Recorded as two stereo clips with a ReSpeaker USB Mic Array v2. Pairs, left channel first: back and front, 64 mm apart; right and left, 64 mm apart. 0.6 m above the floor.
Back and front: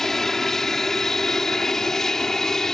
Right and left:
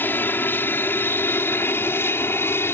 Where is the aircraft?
100° right.